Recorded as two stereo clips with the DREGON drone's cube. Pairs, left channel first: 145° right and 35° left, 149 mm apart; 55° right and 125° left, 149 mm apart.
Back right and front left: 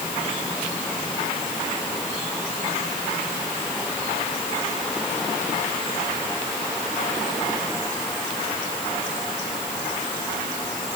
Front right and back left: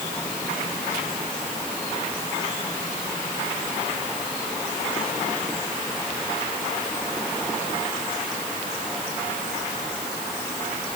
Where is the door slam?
I don't hear a door slam.